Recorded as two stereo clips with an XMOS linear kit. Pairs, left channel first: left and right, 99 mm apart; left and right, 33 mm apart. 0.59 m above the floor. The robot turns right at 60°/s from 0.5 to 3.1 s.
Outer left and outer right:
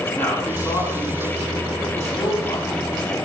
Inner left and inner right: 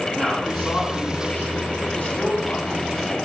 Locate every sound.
0.1 s a man speaking: 20° left (ahead or behind), 6 m; by 3.2 s 5° left (ahead or behind), 6 m